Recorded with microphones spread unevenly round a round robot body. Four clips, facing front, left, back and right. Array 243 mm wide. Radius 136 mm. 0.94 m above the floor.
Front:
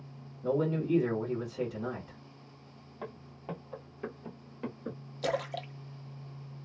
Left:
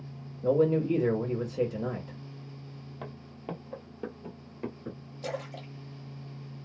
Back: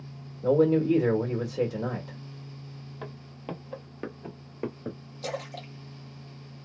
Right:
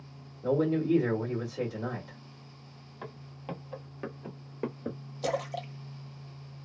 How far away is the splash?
About 0.7 m.